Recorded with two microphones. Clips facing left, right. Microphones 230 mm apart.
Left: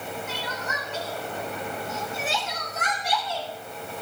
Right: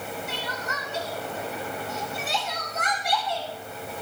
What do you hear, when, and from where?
0.3 s crying: 85° left, 7.5 m